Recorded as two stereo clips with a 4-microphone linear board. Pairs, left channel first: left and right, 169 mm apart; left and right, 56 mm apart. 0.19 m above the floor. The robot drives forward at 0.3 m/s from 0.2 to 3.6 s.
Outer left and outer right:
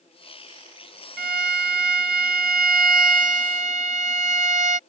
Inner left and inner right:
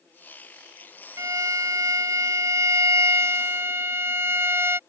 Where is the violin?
75° right (ahead or behind); by 4.8 s 50° right (ahead or behind).